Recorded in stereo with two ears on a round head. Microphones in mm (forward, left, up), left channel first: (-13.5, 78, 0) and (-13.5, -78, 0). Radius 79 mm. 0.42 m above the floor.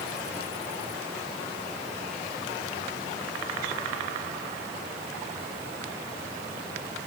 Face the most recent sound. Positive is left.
No sound to turn to.